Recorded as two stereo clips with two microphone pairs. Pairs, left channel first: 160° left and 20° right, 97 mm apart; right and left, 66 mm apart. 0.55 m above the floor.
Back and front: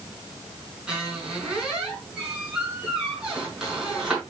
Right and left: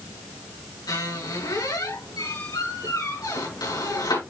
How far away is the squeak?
About 5.5 m.